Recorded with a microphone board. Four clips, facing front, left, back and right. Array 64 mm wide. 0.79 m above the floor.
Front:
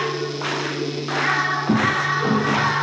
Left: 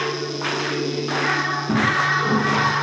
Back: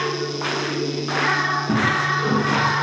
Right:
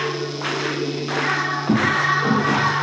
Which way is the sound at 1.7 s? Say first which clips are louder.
Right 1 dB, front 2 dB; 35° right.